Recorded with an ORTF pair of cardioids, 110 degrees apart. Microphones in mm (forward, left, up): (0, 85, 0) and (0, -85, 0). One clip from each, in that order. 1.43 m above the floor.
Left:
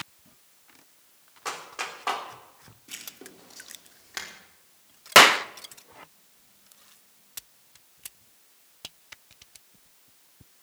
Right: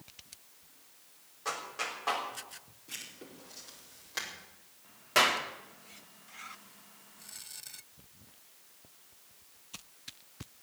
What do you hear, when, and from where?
1.4 s a clap: 45° left, 3.5 m
2.9 s writing: 35° left, 4.5 m
5.2 s a clap: 70° left, 0.7 m